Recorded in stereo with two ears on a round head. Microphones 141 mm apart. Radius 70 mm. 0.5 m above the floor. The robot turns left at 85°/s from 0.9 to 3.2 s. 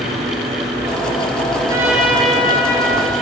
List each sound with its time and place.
1.7 s a trumpet: 155° right, 4 m; by 3.1 s 85° left, 4 m